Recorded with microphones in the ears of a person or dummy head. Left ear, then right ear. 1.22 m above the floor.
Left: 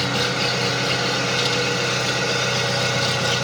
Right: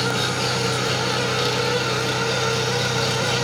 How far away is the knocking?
No knocking in this recording.